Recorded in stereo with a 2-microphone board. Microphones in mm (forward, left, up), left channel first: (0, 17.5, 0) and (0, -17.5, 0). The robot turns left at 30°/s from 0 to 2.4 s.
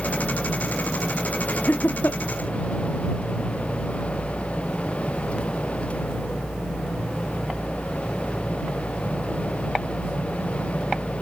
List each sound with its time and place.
1.5 s laughter: 65° left (ahead or behind); by 2.2 s 85° left